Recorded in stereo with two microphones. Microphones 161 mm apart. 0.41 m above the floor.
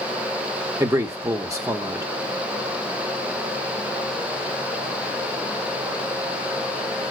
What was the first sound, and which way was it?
A man speaking, 20° right (ahead or behind).